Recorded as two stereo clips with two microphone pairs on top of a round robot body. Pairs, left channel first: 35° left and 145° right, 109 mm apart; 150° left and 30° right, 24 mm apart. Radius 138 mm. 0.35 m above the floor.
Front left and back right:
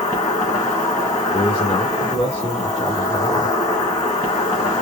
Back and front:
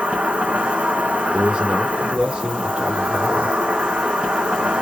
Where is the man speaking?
5° right, 1.7 m.